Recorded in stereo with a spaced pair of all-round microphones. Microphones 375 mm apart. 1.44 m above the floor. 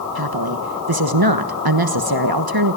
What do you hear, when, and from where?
0.1 s a woman speaking: 80° right, 1.2 m